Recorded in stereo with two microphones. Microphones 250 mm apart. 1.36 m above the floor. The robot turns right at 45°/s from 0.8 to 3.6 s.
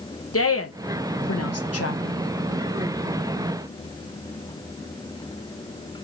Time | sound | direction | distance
0.3 | a woman speaking | 65° left (ahead or behind) | 1.0 m